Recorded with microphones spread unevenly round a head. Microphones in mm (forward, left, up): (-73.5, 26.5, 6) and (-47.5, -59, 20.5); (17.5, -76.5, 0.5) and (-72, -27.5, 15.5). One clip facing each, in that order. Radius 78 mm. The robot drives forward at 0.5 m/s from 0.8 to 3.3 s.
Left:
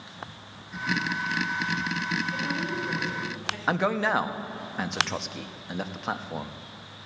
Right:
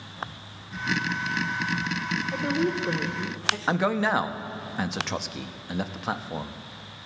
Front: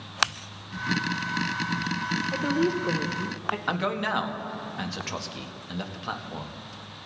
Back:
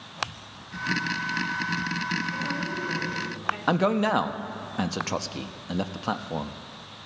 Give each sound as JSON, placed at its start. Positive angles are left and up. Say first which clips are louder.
{"t": 2.3, "sound": "a woman speaking", "louder": "right 4 dB, front 6 dB", "azimuth_deg": -25, "distance_m": 1.1}
{"t": 3.7, "sound": "a man speaking", "louder": "even, back 7 dB", "azimuth_deg": -160, "distance_m": 0.5}